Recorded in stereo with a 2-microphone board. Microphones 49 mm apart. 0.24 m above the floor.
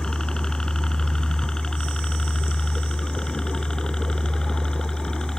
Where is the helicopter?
15° left (ahead or behind).